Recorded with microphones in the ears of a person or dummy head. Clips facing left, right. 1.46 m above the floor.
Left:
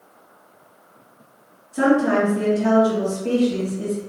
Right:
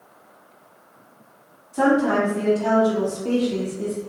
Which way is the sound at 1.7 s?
15° left (ahead or behind).